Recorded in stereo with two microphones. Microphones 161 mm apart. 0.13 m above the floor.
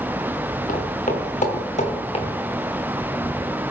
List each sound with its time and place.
0.7 s footsteps: 60° left (ahead or behind), 3 m; by 2.2 s 40° left (ahead or behind), 2.5 m